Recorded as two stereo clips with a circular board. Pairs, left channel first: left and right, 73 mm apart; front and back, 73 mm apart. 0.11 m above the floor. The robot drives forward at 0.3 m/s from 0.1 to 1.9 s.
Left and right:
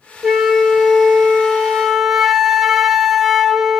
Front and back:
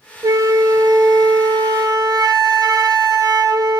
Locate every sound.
0.2 s a flute: 175° right, 0.8 m